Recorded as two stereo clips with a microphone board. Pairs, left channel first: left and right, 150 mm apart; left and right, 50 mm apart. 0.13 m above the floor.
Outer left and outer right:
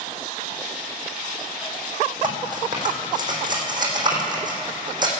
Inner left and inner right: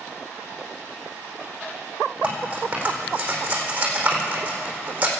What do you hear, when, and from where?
2.2 s cutlery clinking: 30° right (ahead or behind), 4.5 m